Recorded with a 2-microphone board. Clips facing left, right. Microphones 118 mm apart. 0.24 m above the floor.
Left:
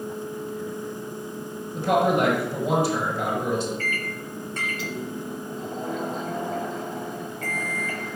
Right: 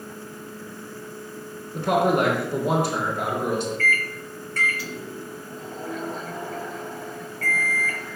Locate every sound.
1.7 s a man speaking: 60° right (ahead or behind), 3 m
3.8 s a microwave: 20° left (ahead or behind), 0.8 m